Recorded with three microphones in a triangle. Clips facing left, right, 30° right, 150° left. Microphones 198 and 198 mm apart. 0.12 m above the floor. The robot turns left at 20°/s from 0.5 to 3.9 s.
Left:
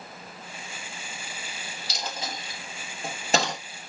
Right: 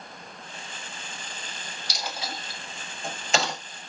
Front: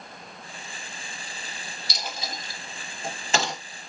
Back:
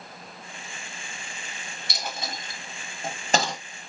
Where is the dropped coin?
145° left, 1.3 m; by 3.6 s 110° left, 1.3 m.